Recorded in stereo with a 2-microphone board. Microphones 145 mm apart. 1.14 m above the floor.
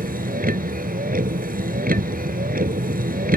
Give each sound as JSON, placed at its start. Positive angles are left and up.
{"t": 0.0, "sound": "a vehicle", "side_deg": -85}